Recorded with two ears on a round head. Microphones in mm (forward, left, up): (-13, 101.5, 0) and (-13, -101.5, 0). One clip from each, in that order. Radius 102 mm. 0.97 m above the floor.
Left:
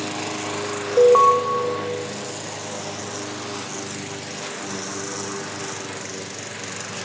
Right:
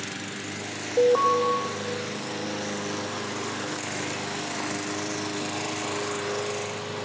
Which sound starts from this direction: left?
An alarm, at 1.0 s.